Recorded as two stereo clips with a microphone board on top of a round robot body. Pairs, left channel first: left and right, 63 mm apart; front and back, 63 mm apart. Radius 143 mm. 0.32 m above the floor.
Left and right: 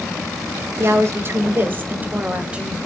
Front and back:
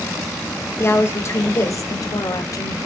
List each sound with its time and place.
0.8 s a woman speaking: 50° right, 2.0 m; by 2.9 s 10° right, 2.0 m